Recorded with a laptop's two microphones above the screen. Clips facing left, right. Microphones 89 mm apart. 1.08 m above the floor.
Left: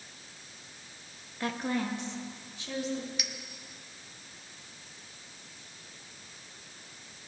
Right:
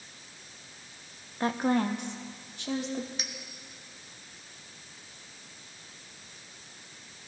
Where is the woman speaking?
30° right (ahead or behind), 0.5 m; by 3.1 s 70° right (ahead or behind), 1.5 m.